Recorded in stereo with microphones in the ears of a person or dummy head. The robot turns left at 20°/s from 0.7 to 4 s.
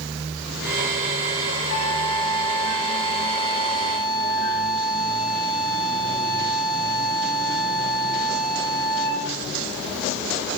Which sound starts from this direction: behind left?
A flute, at 1.7 s.